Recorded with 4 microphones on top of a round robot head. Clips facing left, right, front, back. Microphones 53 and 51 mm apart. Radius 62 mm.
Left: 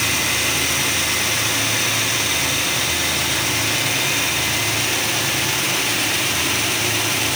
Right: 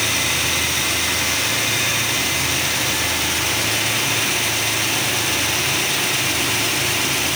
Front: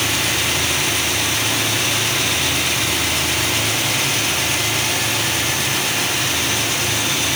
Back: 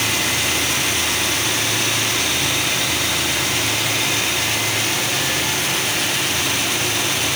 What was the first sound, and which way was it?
Only background noise.